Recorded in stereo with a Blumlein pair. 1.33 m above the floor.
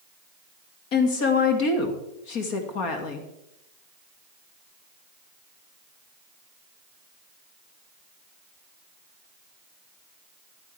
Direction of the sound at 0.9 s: 40° left.